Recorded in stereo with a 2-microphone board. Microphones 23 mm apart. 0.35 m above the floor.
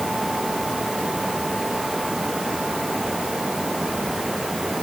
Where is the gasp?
I don't hear a gasp.